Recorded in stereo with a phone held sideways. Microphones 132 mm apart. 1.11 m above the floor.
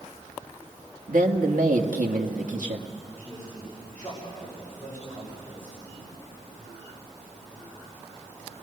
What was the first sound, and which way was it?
A man speaking, 85° right.